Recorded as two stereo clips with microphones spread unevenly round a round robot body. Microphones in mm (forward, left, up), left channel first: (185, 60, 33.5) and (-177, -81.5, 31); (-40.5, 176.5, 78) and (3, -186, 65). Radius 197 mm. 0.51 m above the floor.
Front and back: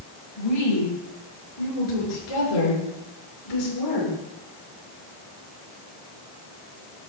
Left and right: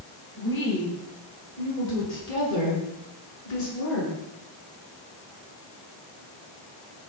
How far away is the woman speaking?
About 8.5 m.